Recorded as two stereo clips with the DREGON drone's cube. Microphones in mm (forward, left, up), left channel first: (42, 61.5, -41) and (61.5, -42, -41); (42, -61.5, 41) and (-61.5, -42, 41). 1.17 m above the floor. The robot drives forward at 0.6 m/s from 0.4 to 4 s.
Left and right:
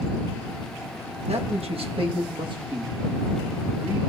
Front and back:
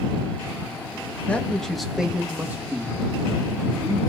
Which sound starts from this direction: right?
A man speaking, at 1.3 s.